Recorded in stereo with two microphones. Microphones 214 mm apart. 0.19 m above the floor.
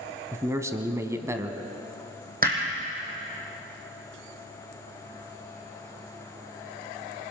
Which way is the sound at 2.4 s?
40° right (ahead or behind).